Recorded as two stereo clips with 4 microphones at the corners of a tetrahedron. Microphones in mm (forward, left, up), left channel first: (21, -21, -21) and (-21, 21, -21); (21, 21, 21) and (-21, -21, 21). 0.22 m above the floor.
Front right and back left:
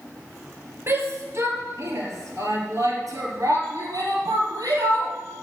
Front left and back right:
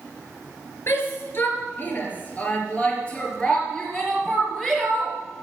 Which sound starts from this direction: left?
A shout, at 0.9 s.